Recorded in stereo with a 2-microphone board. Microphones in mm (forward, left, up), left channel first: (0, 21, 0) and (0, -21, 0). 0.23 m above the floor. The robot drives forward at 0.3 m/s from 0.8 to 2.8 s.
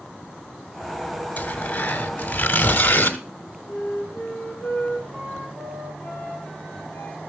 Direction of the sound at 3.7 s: 45° left (ahead or behind).